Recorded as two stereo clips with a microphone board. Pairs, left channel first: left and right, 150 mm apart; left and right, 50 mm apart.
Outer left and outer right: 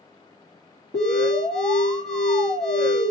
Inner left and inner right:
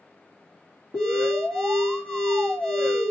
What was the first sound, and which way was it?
An alarm, 60° right (ahead or behind).